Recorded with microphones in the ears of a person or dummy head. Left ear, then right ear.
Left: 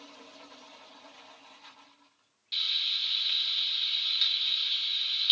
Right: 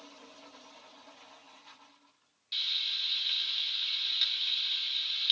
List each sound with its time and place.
2.5 s frying: centre (ahead or behind), 1.9 m